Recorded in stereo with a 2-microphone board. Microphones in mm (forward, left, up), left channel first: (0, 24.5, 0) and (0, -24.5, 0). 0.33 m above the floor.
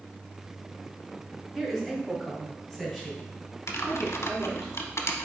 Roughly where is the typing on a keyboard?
Left.